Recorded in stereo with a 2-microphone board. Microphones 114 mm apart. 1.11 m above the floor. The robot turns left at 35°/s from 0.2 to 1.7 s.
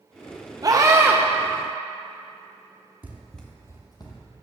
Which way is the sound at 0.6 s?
35° right (ahead or behind).